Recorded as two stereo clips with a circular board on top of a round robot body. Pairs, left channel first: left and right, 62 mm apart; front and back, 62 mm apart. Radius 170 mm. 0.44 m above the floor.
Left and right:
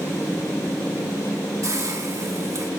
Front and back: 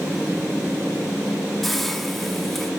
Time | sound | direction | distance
1.6 | a hiss | 85° right | 2.5 m